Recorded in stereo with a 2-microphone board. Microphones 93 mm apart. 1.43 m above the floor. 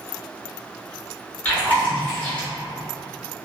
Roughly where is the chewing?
Centre.